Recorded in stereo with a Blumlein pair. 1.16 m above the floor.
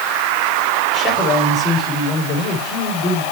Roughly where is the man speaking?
Ahead left.